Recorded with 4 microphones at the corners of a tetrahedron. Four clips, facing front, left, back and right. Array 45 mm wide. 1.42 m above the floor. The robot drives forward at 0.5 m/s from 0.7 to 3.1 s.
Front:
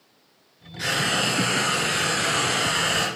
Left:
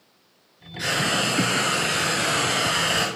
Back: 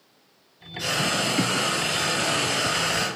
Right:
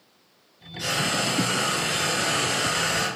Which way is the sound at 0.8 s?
40° left.